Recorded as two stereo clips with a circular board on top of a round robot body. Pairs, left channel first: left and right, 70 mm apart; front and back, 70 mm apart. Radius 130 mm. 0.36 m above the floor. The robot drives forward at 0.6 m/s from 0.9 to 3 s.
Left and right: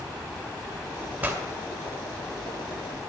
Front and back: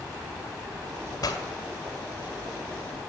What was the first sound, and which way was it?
A pop, 30° right.